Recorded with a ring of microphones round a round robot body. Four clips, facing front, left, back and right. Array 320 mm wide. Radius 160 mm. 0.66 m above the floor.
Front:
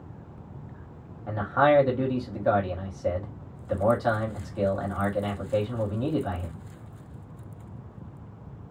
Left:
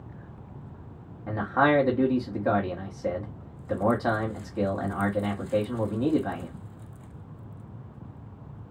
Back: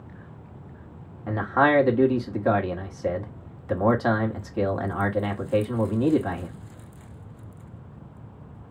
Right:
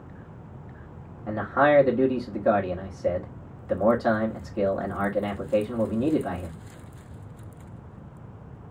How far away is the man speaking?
About 1.2 m.